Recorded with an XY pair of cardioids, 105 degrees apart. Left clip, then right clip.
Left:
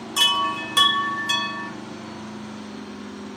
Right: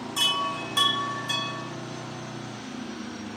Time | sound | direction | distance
0.2 | a chime | 50° left | 1.1 m